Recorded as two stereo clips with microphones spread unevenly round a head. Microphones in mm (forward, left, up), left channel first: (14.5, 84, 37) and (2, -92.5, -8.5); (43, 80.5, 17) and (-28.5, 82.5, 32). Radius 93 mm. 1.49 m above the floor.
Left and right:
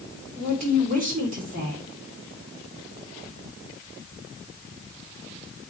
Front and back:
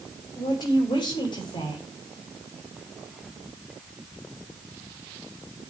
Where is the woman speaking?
50° right, 5 m.